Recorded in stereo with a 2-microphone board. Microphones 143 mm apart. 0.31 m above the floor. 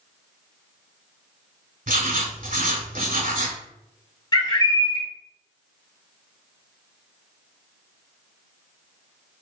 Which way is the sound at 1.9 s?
70° right (ahead or behind).